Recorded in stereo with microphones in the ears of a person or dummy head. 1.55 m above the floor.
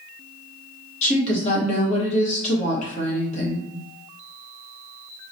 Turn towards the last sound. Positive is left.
turn(degrees=35)  # may be behind; listen again after turning